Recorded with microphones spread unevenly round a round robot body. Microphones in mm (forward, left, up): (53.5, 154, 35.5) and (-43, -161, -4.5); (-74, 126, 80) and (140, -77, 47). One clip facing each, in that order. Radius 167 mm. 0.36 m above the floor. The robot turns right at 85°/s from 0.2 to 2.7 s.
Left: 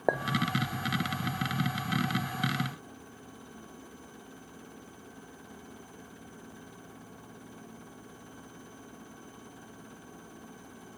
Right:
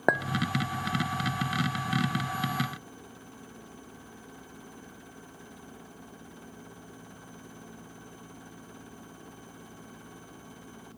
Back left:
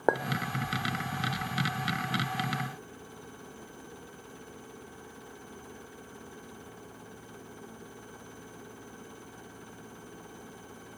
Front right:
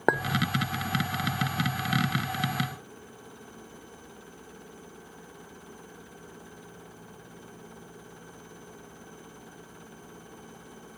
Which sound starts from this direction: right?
A clink, at 0.1 s.